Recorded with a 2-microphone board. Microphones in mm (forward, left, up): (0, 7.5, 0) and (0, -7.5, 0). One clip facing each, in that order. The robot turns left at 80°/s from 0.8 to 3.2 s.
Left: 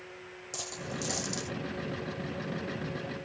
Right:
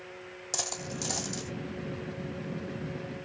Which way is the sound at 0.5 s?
30° right (ahead or behind).